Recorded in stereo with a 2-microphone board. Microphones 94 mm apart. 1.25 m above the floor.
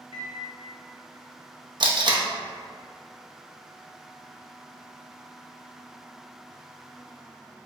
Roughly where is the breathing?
No breathing in this recording.